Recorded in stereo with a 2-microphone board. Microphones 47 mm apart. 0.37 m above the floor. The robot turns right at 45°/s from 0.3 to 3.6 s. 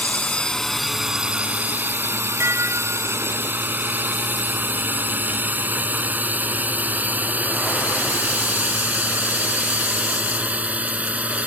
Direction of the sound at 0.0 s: 25° left (ahead or behind).